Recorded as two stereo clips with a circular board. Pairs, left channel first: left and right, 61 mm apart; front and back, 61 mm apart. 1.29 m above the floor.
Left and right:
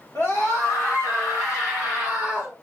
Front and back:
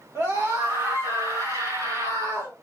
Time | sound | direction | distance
0.1 | a scream | 140° left | 1.6 m